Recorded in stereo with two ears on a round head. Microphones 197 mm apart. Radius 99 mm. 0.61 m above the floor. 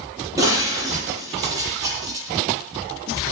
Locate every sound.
0.4 s breaking glass: 15° right (ahead or behind), 9 m